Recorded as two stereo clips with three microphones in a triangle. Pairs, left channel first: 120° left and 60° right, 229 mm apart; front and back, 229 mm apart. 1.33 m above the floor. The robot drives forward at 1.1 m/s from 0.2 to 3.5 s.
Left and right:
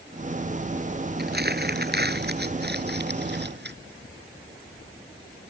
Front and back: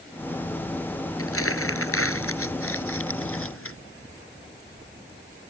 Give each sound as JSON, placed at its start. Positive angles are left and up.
{"t": 1.2, "sound": "crumpling", "azimuth_deg": -15}